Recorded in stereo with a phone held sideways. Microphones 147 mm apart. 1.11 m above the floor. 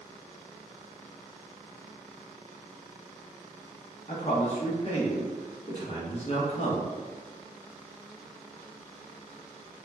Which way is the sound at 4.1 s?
45° left (ahead or behind).